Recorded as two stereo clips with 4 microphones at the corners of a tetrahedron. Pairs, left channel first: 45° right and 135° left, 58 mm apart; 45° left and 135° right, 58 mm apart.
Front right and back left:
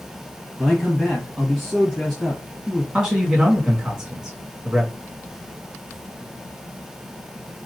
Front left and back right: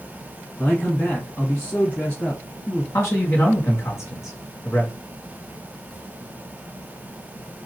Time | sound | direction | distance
0.6 | a man speaking | 35° left | 1.2 m
2.9 | a man speaking | 55° left | 1.7 m